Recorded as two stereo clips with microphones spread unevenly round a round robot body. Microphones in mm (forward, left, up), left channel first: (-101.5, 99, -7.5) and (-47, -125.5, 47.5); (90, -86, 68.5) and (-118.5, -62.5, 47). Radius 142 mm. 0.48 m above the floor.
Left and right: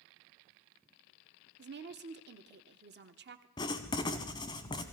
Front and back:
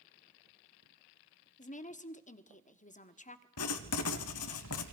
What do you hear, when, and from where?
1.6 s a woman speaking: 45° right, 1.3 m
3.6 s writing: 25° left, 0.8 m